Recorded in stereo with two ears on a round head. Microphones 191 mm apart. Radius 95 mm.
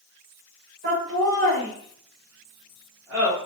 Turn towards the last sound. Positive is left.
turn(degrees=-5)  # may be behind; listen again after turning